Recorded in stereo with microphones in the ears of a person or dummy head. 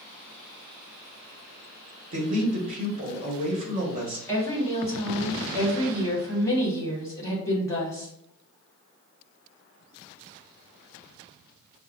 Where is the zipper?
No zipper in this recording.